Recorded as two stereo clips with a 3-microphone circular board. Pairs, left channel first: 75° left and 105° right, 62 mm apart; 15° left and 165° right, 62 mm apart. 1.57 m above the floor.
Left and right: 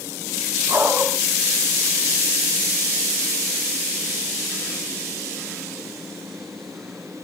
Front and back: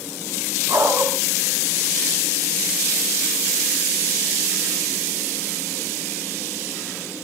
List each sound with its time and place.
0.7 s a dog barking: 140° right, 6.5 m